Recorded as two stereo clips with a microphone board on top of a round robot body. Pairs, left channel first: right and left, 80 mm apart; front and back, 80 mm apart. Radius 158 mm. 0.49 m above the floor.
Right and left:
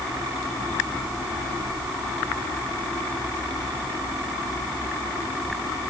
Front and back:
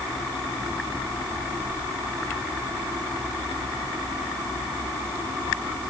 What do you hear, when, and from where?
Only background noise.